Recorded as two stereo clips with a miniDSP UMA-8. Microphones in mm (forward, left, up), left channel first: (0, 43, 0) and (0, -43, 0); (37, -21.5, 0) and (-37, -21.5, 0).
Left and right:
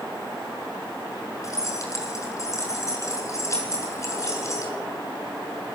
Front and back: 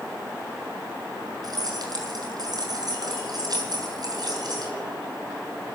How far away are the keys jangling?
About 7 m.